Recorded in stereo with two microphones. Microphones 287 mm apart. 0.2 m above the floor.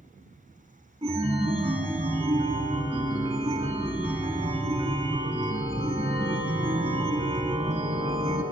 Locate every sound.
1.0 s a chime: 20° right (ahead or behind), 0.7 m